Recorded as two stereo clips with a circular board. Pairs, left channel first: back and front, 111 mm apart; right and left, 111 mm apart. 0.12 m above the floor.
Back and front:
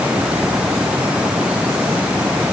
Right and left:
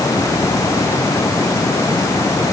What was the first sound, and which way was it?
Only background noise.